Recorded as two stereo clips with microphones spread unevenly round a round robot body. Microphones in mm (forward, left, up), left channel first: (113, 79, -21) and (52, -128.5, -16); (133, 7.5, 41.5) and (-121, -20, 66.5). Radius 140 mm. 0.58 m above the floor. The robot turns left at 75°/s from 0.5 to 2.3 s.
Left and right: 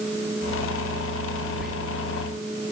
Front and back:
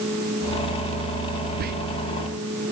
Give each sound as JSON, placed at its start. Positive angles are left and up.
{"t": 1.6, "sound": "whispering", "azimuth_deg": 165, "distance_m": 0.6}